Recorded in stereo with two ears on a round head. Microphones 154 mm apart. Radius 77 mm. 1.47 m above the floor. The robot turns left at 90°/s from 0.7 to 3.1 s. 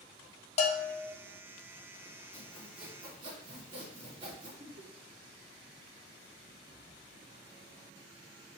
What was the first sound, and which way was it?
A bell, 40° left.